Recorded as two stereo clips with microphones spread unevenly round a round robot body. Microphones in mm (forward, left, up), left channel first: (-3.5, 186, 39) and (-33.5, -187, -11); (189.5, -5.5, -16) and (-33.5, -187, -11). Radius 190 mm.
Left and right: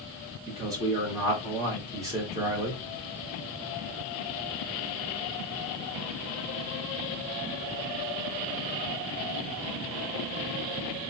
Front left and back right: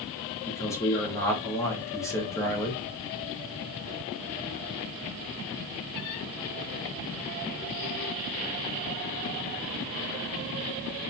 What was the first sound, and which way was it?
A man speaking, 30° right.